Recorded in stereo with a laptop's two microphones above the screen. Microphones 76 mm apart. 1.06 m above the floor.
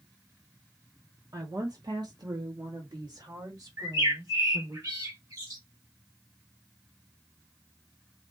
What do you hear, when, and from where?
1.3 s a woman speaking: 50° right (ahead or behind), 0.8 m
3.8 s a bird: 50° right (ahead or behind), 2.5 m